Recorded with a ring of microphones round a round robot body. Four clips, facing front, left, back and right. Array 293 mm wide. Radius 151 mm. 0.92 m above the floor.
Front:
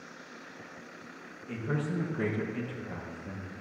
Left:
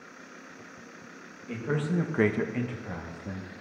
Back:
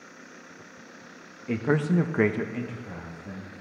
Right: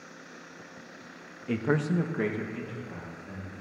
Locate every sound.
1.5 s a man speaking: 145° right, 1.0 m; by 3.5 s 85° left, 1.8 m